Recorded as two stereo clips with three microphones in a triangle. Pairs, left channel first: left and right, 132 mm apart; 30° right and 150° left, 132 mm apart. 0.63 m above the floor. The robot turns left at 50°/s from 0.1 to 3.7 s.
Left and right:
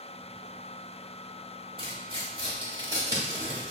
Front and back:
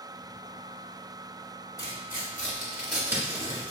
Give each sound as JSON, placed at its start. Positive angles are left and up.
{"t": 1.8, "sound": "tearing paper", "azimuth_deg": -75, "distance_m": 1.6}